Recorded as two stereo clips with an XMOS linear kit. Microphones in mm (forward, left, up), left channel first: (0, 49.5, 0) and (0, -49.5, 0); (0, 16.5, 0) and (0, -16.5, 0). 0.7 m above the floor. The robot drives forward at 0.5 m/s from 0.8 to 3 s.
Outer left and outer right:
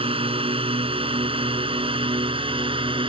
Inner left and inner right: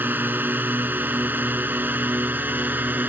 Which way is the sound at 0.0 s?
70° right (ahead or behind).